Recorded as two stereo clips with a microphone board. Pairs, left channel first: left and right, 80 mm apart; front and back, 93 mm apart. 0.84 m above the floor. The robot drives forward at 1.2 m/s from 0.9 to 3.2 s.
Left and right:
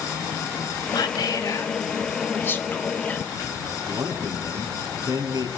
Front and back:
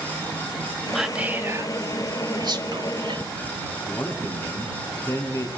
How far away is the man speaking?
About 8 m.